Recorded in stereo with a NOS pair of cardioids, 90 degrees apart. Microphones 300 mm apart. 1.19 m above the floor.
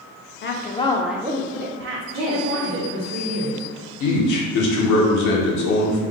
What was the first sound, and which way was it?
A woman speaking, 40° left.